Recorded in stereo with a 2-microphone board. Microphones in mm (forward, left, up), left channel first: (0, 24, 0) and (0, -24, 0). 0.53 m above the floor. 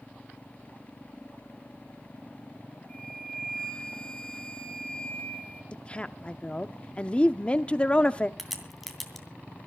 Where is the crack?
Centre (ahead or behind), 2.5 m.